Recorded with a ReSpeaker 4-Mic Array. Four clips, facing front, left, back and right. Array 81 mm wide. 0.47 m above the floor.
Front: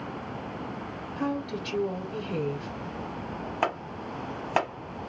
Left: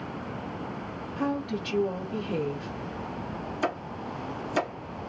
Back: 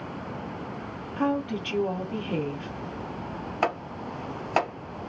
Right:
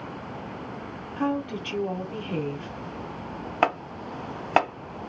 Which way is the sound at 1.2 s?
160° right.